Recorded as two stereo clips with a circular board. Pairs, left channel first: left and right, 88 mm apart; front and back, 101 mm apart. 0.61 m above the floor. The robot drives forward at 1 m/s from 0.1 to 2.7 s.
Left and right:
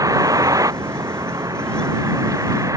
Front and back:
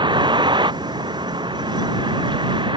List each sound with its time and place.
0.0 s a vehicle: 140° right